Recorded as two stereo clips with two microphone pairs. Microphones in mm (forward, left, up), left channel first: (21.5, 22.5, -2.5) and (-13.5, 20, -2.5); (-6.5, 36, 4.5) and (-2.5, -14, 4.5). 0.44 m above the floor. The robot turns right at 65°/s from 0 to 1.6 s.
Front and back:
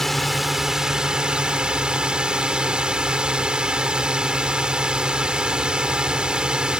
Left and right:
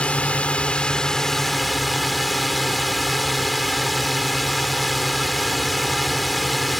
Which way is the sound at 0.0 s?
80° left.